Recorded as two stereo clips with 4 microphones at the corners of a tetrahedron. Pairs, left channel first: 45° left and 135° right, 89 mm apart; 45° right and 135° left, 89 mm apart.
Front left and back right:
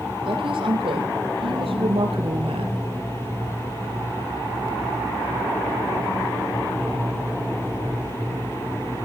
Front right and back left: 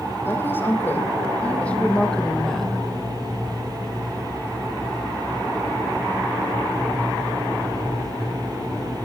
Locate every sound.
0.2 s a woman speaking: 110° right, 5.5 m; by 2.8 s 135° right, 4 m